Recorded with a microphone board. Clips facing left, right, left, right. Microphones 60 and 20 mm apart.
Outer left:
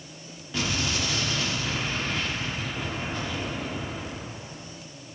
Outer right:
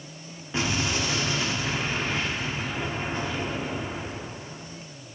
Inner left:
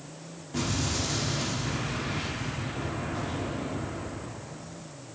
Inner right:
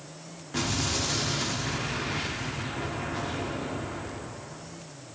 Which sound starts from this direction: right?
An explosion, at 0.5 s.